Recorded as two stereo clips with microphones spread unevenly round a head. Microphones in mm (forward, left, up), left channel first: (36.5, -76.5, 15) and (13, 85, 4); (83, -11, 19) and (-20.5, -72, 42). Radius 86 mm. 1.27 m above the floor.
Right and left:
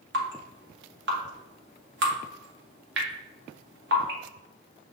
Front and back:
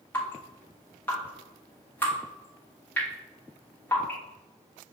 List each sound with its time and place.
0.1 s dripping: 105° left, 1.1 m